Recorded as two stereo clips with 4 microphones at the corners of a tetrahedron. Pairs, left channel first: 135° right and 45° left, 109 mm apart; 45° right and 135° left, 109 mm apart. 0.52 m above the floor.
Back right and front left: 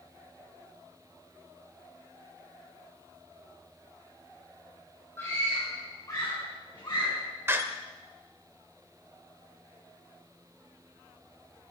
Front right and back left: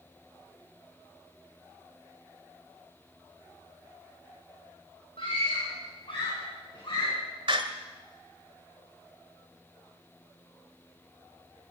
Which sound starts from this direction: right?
A scream, at 5.2 s.